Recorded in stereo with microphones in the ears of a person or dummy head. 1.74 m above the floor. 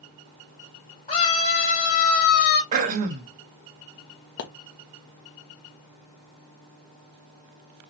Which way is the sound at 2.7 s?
40° right (ahead or behind).